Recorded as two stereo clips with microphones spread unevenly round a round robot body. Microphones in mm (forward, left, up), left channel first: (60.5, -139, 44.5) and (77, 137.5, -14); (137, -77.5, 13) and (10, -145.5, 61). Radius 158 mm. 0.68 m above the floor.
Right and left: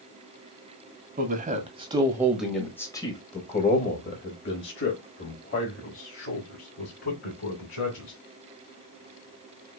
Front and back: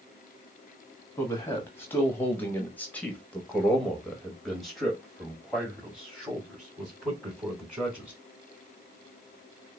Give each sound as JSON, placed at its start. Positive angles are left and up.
{"t": 1.2, "sound": "a man speaking", "azimuth_deg": 70, "distance_m": 1.4}